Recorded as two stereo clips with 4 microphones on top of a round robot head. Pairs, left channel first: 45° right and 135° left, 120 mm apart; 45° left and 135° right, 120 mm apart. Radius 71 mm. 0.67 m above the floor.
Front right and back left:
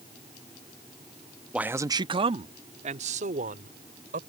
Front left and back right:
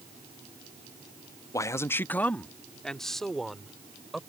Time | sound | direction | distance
1.5 | a man speaking | 60° left | ?